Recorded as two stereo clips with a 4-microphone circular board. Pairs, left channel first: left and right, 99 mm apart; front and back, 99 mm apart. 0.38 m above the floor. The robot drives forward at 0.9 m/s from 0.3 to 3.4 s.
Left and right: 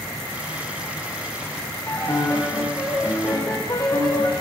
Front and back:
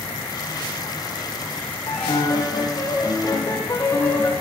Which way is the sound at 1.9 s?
35° left.